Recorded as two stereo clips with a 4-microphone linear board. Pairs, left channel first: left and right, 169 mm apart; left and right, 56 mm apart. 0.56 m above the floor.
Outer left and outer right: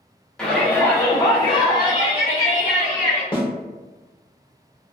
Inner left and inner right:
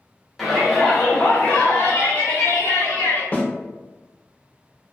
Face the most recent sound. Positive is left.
turn(degrees=30)  # may be behind; listen again after turning